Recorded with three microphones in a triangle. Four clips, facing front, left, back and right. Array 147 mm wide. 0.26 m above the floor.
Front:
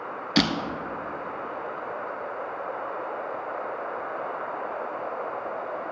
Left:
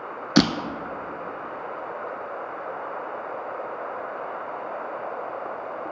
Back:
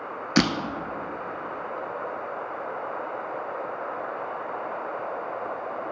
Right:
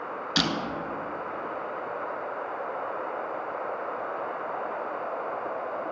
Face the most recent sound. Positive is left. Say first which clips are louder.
# left 10 dB, back 2 dB
turn(degrees=90)